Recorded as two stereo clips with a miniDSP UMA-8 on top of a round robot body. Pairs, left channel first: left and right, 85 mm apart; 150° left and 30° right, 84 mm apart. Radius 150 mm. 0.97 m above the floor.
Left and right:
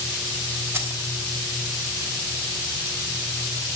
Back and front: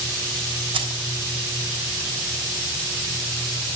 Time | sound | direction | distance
0.7 | keys jangling | 30° right | 3.5 m